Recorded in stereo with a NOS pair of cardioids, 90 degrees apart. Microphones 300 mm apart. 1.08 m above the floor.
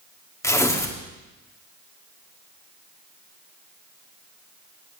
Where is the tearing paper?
10° left, 2 m.